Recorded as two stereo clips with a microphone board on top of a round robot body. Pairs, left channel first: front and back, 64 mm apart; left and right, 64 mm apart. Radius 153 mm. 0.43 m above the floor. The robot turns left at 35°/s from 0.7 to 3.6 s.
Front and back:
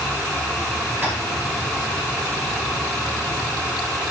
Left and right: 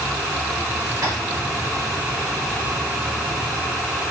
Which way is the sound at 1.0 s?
125° right.